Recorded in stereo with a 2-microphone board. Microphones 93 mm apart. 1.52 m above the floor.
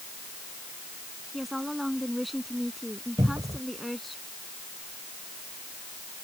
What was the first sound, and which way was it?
A woman speaking, centre (ahead or behind).